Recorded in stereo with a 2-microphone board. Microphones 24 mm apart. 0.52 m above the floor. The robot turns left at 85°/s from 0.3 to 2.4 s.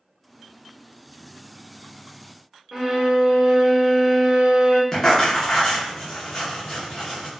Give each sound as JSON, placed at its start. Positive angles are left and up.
{"t": 2.7, "sound": "a violin", "side_deg": -15, "distance_m": 0.6}
{"t": 4.9, "sound": "writing", "side_deg": 25, "distance_m": 0.7}